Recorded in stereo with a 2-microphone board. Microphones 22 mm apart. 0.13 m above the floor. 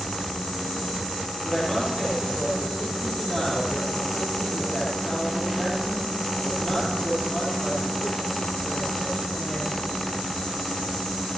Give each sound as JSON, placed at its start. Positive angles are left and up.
{"t": 1.4, "sound": "a woman speaking", "side_deg": 35, "distance_m": 4.5}